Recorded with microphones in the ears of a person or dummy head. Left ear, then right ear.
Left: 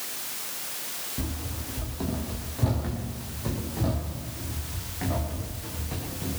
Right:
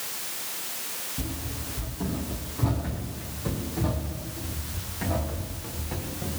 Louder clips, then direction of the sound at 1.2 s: Even; 35° left (ahead or behind).